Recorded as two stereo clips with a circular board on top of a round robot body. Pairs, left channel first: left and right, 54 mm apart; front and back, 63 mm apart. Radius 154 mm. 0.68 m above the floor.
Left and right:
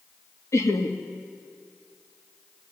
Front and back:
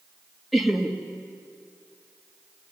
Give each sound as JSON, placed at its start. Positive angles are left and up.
{"t": 0.5, "sound": "laughter", "azimuth_deg": 90, "distance_m": 1.9}